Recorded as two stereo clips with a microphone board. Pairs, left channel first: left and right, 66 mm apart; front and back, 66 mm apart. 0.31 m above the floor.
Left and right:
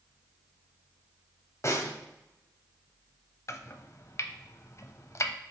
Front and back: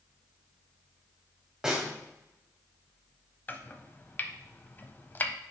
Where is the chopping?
55° left, 0.7 m.